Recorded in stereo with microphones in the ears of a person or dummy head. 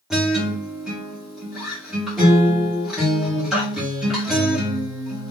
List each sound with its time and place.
0.1 s a guitar: centre (ahead or behind), 1.3 m